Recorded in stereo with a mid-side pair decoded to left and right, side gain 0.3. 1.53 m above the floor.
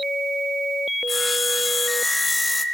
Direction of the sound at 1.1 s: 20° left.